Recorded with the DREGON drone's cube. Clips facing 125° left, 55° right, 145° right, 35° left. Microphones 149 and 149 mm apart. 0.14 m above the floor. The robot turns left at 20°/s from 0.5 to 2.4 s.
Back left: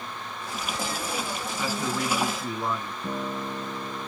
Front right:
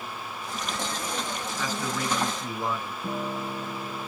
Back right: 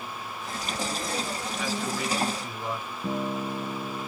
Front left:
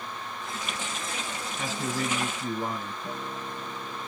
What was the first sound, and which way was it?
A man speaking, 55° left.